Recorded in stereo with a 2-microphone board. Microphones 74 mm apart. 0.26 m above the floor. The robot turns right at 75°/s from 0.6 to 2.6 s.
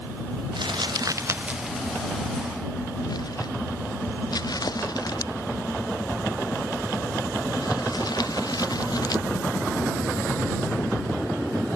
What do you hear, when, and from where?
0.6 s crumpling: 90° right; by 9.2 s 60° left (ahead or behind)